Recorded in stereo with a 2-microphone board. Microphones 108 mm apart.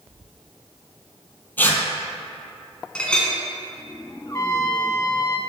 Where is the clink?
10° left (ahead or behind), 1.5 m.